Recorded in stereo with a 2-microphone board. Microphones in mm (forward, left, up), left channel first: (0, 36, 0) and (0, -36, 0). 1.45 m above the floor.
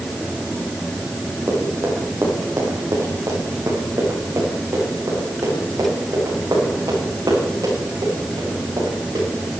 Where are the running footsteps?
30° right (ahead or behind), 4.5 m; by 9.2 s 60° right (ahead or behind), 8.5 m.